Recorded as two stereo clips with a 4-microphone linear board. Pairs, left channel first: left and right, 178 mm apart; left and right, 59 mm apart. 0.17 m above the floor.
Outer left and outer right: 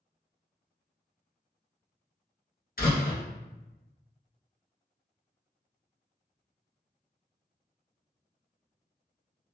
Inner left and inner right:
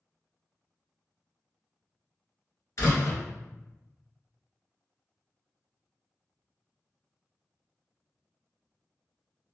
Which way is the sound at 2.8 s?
60° left (ahead or behind).